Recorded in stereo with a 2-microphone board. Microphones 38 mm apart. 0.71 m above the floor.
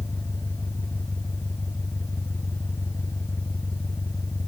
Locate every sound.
0.0 s an engine running: 85° left